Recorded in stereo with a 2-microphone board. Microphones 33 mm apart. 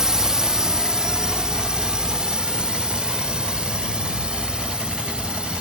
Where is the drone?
15° right (ahead or behind); by 5.6 s 25° right (ahead or behind).